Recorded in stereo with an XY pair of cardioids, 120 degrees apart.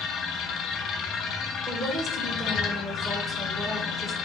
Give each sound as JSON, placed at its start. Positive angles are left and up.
{"t": 0.0, "sound": "a machine running", "azimuth_deg": 55, "distance_m": 0.9}
{"t": 1.7, "sound": "a woman speaking", "azimuth_deg": -20, "distance_m": 1.6}